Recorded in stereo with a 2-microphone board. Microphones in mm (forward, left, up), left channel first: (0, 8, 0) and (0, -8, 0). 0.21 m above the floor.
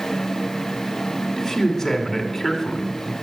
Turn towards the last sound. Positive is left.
turn(degrees=10)  # may be behind; listen again after turning